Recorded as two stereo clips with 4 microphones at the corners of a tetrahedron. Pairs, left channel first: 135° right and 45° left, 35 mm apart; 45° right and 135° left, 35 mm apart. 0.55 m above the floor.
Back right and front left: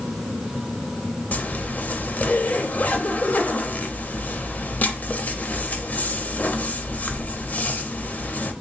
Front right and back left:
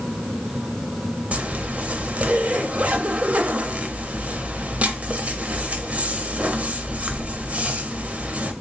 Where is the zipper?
175° right, 0.5 m.